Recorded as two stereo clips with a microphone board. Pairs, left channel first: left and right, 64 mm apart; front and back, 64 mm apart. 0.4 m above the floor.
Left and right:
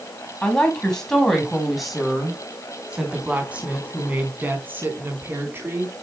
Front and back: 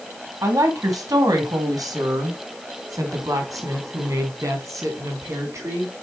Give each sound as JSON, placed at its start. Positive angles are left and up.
{"t": 0.4, "sound": "a woman speaking", "azimuth_deg": 165, "distance_m": 3.0}